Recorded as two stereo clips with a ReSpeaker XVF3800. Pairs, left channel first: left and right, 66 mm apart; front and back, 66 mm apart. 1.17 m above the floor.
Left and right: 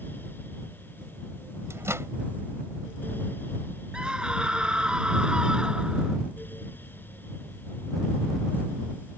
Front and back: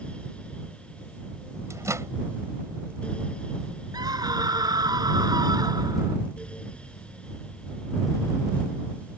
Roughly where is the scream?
Behind.